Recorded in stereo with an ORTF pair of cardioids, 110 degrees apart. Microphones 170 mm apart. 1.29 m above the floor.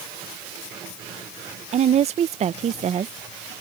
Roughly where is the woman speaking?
Ahead right.